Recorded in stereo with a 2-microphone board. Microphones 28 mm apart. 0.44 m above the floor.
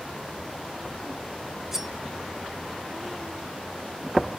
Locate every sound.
1.7 s cutlery clinking: 10° right (ahead or behind), 2 m